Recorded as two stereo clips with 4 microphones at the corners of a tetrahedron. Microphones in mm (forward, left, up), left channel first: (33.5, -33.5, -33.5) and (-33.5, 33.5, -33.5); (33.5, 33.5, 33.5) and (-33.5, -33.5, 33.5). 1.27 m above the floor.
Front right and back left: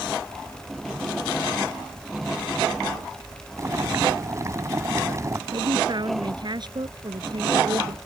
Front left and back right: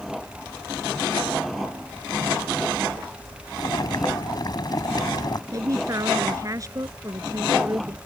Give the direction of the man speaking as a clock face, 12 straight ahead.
6 o'clock.